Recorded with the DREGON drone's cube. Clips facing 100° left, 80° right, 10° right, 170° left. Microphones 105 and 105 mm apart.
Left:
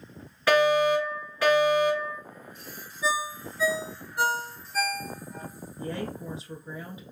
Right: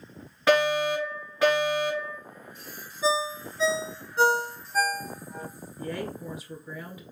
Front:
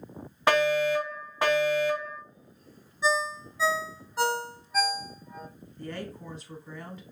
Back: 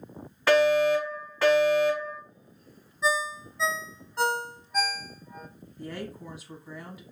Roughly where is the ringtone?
Right.